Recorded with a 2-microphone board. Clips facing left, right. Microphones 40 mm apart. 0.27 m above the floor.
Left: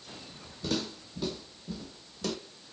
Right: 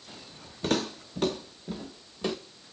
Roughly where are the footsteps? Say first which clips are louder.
Right 5 dB; right.